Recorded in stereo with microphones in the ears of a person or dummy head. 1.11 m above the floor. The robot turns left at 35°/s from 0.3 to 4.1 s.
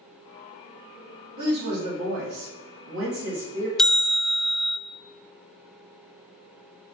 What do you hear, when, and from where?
1.4 s a woman speaking: 50° right, 1.8 m; by 3.7 s 135° right, 1.8 m
3.8 s a bell: 5° left (ahead or behind), 0.6 m; by 4.8 s 10° right (ahead or behind), 0.6 m